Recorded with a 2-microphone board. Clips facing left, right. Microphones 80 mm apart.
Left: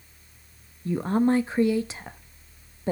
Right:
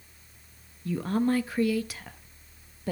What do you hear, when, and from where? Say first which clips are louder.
0.8 s a woman speaking: left 4 dB; 30° left (ahead or behind), 0.7 m